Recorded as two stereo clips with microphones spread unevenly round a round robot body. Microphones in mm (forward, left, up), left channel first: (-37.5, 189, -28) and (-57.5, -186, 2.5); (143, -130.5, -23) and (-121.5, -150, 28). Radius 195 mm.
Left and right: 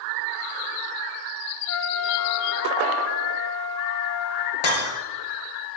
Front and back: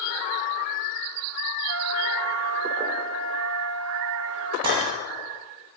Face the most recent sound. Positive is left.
turn(degrees=110)